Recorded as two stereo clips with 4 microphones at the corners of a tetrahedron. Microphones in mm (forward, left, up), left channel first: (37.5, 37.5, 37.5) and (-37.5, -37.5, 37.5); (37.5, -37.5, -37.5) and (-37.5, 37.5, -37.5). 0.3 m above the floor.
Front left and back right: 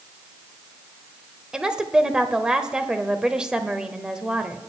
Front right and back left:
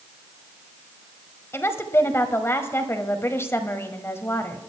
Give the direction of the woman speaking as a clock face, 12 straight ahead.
2 o'clock.